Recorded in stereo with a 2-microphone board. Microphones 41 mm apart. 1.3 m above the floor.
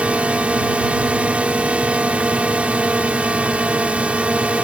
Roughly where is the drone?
Right.